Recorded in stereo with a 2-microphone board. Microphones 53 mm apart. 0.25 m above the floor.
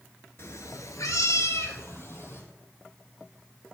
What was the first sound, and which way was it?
A cat meowing, 55° left (ahead or behind).